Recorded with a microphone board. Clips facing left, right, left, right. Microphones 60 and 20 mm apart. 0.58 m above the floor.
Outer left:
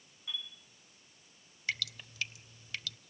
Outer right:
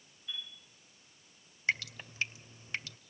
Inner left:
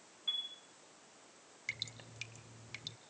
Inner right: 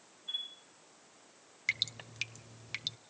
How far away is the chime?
About 9.5 m.